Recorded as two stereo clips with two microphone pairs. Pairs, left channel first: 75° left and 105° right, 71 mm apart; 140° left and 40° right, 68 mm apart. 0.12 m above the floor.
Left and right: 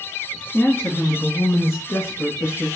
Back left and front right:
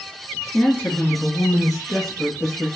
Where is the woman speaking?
110° left, 1.2 m; by 2.7 s 35° left, 1.7 m.